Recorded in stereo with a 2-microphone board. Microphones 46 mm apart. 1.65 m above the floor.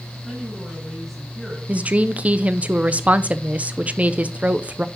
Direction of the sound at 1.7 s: 30° right (ahead or behind).